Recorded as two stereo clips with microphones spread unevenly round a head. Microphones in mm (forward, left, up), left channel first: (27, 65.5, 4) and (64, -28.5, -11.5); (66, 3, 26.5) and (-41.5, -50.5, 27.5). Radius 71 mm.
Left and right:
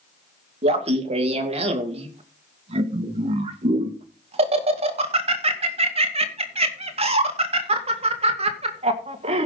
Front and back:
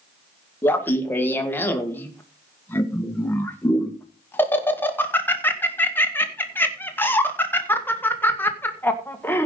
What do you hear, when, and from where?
0.6 s laughter: 50° right, 1.8 m